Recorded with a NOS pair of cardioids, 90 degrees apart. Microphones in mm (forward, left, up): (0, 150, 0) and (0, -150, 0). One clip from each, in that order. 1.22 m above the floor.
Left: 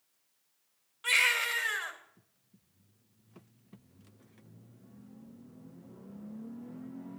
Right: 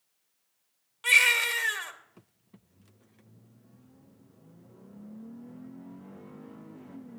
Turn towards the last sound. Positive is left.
turn(degrees=-40)